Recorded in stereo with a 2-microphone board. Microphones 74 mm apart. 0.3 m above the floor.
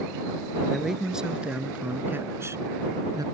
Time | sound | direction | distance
0.7 | a man speaking | centre (ahead or behind) | ?